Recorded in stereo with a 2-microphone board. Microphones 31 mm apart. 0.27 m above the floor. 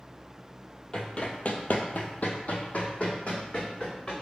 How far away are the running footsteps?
About 0.6 m.